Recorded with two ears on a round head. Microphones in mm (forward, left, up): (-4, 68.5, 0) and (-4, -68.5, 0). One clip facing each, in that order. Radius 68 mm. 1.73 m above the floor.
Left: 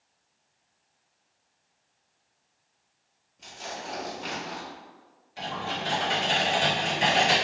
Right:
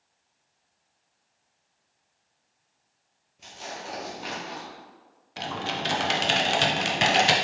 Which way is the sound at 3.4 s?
5° right (ahead or behind).